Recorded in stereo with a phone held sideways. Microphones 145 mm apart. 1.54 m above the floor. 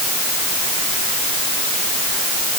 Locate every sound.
Only background noise.